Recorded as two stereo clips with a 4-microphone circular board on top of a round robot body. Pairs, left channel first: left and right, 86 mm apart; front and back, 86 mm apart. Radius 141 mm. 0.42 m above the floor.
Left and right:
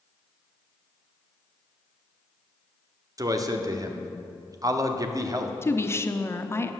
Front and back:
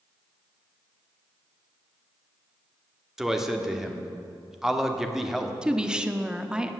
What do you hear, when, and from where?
3.2 s a man speaking: 95° right, 1.7 m
5.6 s a woman speaking: 110° left, 1.3 m